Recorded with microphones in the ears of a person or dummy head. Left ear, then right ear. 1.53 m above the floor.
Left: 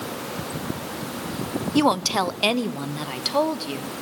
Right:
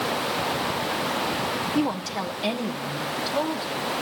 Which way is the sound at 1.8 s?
75° left (ahead or behind).